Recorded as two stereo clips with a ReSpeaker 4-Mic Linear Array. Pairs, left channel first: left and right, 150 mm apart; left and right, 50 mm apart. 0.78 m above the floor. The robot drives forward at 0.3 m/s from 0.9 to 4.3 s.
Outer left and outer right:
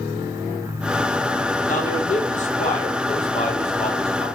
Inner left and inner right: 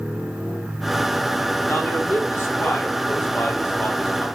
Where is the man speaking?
55° left (ahead or behind), 1.1 m; by 4.4 s 40° left (ahead or behind), 1.4 m.